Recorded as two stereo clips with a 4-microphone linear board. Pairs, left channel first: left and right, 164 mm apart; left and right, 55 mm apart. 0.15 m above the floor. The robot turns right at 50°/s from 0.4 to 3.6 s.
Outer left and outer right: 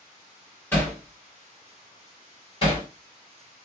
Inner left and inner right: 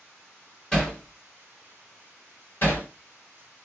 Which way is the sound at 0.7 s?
10° left (ahead or behind).